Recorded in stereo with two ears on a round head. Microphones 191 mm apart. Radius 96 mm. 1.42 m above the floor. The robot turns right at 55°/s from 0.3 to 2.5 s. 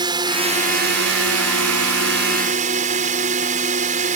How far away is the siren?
No siren in this recording.